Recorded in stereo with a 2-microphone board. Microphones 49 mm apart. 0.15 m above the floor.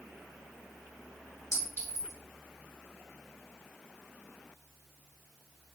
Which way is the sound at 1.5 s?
55° left (ahead or behind).